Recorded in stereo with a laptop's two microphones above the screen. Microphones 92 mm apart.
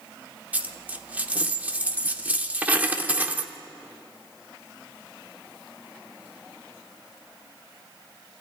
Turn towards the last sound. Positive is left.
turn(degrees=-15)  # may be behind; listen again after turning